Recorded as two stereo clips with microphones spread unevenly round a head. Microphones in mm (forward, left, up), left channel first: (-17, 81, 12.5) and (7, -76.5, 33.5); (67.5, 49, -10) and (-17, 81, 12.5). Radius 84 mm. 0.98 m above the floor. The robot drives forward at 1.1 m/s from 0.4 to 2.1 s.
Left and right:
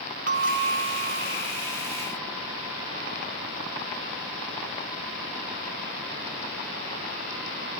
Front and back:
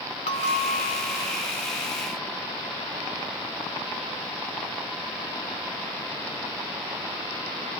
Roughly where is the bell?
Ahead right.